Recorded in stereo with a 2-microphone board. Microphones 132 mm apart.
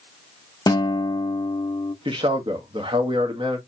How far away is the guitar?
About 0.6 m.